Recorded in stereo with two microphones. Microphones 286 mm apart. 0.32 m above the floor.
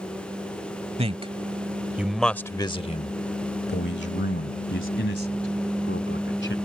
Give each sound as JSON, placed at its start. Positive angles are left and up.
{"t": 1.0, "sound": "a man speaking", "side_deg": -20}